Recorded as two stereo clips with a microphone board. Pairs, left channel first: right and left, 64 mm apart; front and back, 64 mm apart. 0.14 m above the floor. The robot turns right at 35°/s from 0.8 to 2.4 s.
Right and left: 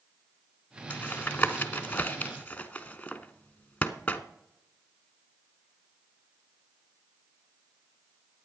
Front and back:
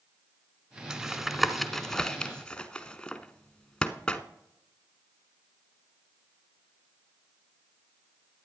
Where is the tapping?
110° right, 0.9 m; by 4.2 s 60° right, 0.9 m.